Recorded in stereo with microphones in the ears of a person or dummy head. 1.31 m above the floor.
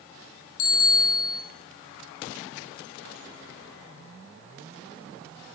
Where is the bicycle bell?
80° left, 4.5 m.